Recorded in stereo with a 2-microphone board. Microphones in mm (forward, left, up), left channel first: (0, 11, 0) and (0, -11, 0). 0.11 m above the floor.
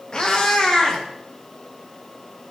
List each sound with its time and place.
0.1 s a cat meowing: 40° left (ahead or behind), 5.5 m